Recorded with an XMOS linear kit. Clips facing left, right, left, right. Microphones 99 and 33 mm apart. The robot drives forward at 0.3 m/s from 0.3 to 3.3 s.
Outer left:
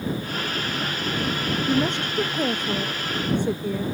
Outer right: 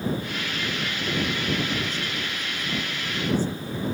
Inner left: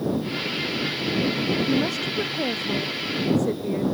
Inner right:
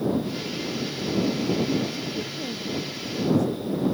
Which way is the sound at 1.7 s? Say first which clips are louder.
Outer left 7 dB, inner left 4 dB; 65° left (ahead or behind).